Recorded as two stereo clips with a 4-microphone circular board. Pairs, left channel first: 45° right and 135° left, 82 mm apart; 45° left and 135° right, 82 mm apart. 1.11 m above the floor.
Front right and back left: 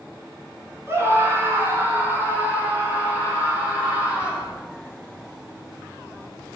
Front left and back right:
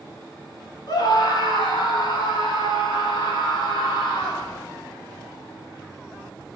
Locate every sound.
0.9 s a scream: 75° left, 3 m; by 4.5 s 60° left, 6 m